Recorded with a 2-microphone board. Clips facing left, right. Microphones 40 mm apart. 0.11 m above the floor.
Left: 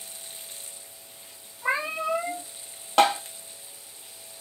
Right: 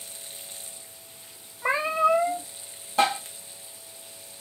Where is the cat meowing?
25° right (ahead or behind), 1.7 m.